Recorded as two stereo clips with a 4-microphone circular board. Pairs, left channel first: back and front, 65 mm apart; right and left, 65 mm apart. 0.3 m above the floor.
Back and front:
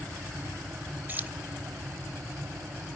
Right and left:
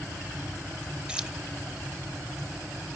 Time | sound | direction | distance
1.1 | keys jangling | 30° left | 0.6 m